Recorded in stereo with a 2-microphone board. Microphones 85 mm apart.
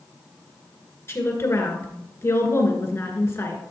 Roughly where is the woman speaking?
Left.